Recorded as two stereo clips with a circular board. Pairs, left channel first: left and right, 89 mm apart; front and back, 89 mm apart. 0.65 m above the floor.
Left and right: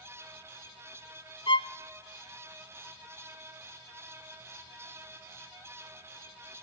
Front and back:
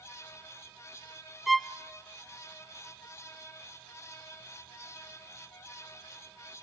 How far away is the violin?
About 0.5 m.